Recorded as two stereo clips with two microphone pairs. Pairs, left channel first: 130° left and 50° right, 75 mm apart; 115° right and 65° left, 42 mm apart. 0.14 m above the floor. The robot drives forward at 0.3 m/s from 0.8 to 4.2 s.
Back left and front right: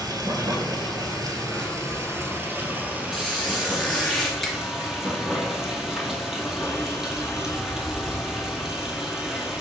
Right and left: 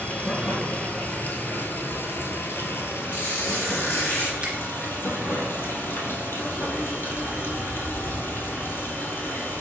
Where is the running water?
70° right, 0.8 m; by 9.6 s 140° right, 1.1 m.